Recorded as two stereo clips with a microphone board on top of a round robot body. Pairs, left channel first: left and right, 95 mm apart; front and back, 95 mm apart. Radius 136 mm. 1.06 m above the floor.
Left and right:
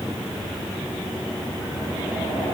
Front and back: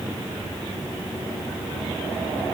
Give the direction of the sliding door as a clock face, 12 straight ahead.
I don't hear a sliding door.